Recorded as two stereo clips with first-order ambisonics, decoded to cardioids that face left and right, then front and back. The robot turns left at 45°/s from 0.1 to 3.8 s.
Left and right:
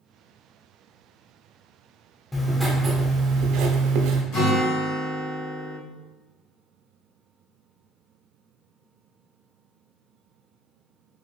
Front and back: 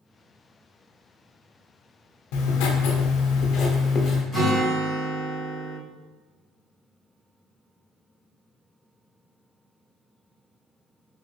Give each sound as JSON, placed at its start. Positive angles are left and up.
{"t": 2.3, "sound": "writing", "azimuth_deg": 10, "distance_m": 0.5}
{"t": 4.3, "sound": "a guitar", "azimuth_deg": 70, "distance_m": 2.0}